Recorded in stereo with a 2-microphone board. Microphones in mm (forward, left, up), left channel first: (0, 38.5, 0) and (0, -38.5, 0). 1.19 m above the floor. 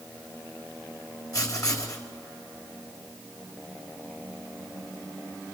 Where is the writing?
50° left (ahead or behind), 3.5 m.